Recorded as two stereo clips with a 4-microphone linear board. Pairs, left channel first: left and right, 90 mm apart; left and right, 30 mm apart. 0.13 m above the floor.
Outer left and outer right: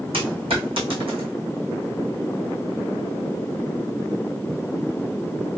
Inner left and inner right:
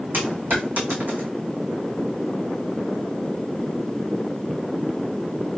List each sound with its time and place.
0.1 s a dropped coin: 85° right, 1.6 m